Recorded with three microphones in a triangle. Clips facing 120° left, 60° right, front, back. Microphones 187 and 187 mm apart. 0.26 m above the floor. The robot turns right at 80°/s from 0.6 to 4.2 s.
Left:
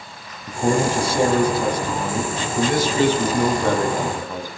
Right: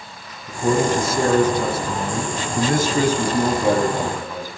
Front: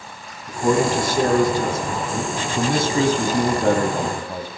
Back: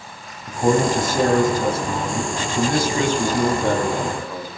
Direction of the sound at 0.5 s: 130° left.